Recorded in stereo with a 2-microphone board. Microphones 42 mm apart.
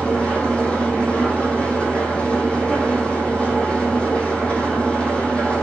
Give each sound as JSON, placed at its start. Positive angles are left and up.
{"t": 0.0, "sound": "an engine running", "side_deg": 30, "distance_m": 2.0}